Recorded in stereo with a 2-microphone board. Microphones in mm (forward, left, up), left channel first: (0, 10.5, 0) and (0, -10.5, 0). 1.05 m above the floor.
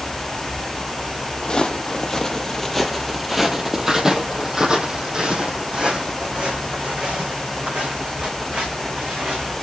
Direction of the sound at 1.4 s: 40° left (ahead or behind).